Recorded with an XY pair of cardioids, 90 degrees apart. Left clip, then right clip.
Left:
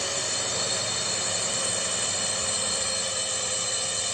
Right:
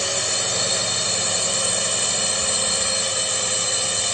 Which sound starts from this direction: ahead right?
A drone, at 0.0 s.